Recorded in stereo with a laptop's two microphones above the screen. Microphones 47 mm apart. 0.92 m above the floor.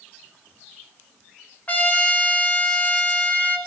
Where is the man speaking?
No man speaking in this recording.